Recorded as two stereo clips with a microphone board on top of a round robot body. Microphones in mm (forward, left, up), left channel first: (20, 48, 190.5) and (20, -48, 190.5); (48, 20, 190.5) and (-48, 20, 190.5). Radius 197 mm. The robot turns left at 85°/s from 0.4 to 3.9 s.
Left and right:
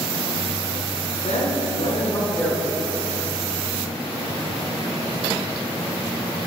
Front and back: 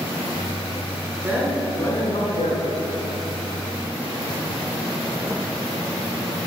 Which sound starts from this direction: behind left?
A man speaking, at 1.2 s.